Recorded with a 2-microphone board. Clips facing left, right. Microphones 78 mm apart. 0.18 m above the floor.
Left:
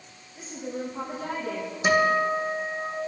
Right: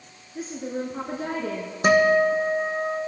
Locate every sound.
0.3 s a woman speaking: 60° right (ahead or behind), 2 m
1.8 s a guitar: 50° right (ahead or behind), 2.5 m